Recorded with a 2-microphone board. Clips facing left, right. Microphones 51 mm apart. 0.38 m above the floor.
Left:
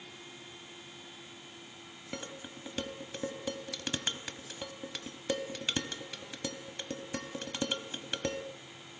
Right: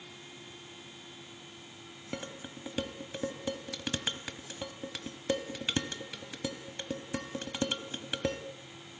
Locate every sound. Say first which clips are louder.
2.1 s dishes clattering: right 2 dB; 5° right (ahead or behind), 1.4 m